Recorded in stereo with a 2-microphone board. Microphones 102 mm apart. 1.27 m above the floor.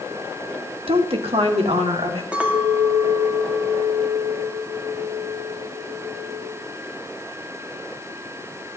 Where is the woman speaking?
65° right (ahead or behind), 1.4 m; by 2.2 s 70° right (ahead or behind), 3 m.